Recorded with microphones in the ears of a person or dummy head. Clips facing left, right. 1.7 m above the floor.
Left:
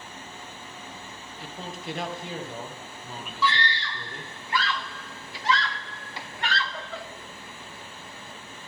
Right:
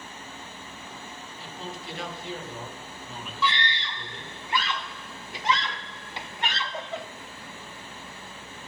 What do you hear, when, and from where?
1.4 s a man speaking: 50° left (ahead or behind), 1.6 m
3.4 s a scream: 20° right (ahead or behind), 0.6 m